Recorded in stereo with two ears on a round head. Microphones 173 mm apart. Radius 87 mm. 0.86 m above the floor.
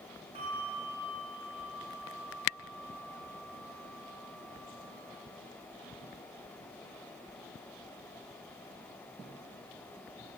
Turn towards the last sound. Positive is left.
turn(degrees=-30)  # may be behind; listen again after turning